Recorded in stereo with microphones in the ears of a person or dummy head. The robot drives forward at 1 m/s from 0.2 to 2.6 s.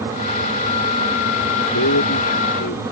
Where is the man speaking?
70° left (ahead or behind); by 2.8 s 80° left.